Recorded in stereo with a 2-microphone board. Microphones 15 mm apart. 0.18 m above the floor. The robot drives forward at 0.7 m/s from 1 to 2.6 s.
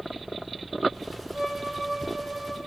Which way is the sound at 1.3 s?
65° right (ahead or behind).